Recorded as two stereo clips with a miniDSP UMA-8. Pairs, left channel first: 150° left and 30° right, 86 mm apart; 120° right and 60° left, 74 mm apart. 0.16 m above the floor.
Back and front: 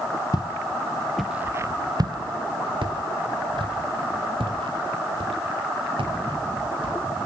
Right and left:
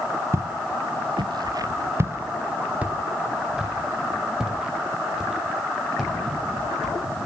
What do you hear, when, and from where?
0.3 s footsteps: 110° left, 1.6 m; by 7.0 s 25° right, 8.5 m